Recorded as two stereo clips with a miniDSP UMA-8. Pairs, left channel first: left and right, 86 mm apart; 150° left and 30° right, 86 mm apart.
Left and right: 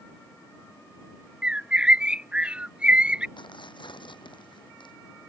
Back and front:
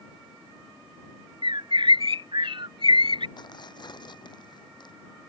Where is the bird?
15° right.